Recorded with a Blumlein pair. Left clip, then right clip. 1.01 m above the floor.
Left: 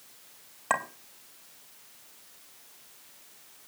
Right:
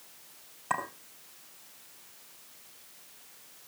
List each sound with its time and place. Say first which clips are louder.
0.7 s a clink: left 3 dB; 65° left, 2.5 m